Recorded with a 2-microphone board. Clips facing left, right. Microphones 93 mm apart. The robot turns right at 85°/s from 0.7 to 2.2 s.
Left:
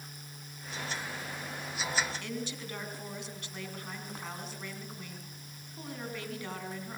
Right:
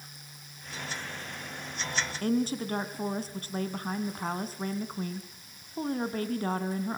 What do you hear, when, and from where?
2.2 s a woman speaking: 45° right (ahead or behind), 3 m